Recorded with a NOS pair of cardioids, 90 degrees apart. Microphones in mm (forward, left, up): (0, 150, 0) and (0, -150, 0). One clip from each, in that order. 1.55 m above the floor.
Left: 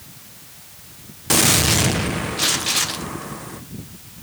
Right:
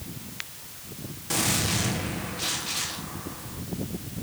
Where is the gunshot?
70° left, 1.5 m.